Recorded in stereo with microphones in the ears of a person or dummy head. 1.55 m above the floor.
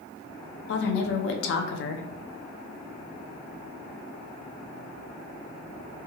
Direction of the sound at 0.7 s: 70° left (ahead or behind).